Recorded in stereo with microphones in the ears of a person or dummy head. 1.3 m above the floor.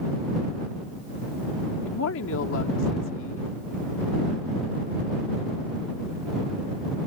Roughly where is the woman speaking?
Left.